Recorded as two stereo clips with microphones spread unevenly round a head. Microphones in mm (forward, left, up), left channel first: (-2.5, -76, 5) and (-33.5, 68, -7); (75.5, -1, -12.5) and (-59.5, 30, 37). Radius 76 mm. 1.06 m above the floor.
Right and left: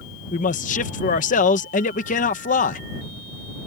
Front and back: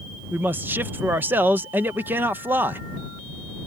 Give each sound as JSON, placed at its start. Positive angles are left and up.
{"t": 0.3, "sound": "a man speaking", "azimuth_deg": -105}